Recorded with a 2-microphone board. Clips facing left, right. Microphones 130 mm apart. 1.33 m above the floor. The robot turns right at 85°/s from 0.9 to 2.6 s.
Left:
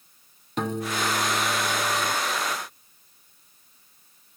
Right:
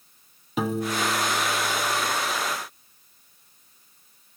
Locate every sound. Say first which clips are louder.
0.6 s a piano: right 2 dB; 5° right, 0.9 m; by 2.1 s 100° left, 0.9 m